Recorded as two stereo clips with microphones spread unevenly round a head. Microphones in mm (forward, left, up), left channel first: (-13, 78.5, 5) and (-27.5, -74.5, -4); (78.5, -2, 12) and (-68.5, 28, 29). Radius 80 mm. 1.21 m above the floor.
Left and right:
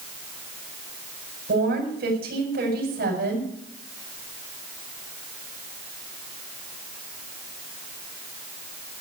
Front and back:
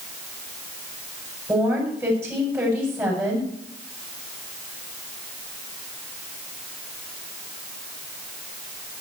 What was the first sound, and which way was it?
A woman speaking, 120° right.